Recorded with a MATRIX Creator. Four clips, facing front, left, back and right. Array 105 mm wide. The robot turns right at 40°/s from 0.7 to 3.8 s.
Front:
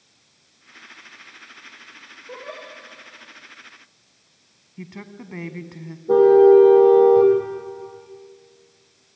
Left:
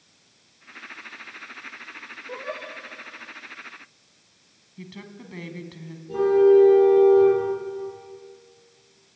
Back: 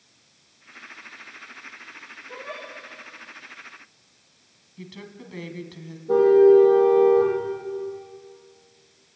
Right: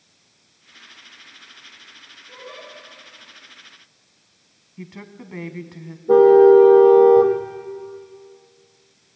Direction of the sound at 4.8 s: 35° right.